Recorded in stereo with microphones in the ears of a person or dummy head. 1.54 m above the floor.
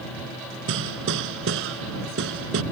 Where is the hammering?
70° right (ahead or behind).